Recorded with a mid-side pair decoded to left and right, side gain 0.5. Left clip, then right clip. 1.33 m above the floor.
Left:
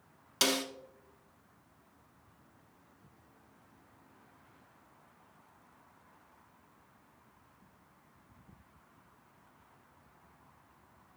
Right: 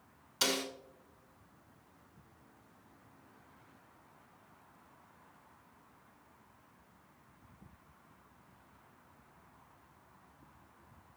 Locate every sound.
0.4 s a snare drum: 60° left, 1.4 m